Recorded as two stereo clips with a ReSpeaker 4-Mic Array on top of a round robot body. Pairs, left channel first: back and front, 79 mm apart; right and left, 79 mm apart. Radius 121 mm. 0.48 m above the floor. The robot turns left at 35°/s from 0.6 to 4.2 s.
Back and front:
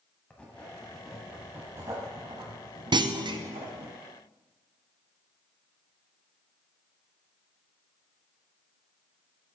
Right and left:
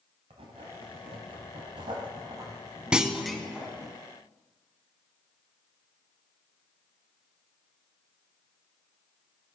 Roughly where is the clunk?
Ahead.